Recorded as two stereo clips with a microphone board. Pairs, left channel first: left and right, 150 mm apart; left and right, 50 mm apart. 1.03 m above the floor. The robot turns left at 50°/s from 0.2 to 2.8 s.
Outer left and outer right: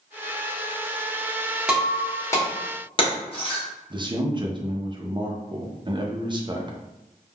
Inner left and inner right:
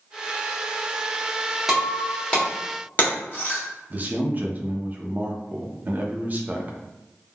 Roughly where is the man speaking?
Right.